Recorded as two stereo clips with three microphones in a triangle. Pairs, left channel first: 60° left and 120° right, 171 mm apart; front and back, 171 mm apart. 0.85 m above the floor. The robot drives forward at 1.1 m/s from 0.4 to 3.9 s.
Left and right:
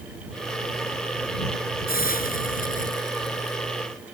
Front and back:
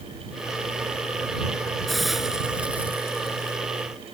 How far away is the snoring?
No snoring in this recording.